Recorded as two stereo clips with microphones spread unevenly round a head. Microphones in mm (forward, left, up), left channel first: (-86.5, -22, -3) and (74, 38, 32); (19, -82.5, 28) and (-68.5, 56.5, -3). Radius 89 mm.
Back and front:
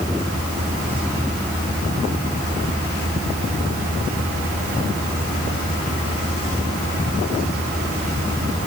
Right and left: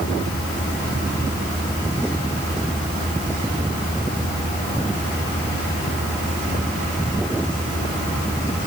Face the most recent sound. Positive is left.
No sound to turn to.